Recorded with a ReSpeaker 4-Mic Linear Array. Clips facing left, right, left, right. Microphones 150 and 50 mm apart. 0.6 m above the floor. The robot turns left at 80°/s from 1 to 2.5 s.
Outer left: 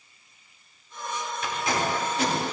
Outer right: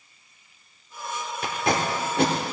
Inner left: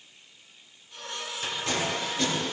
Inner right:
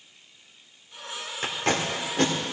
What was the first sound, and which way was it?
Tape being pulled, 40° right (ahead or behind).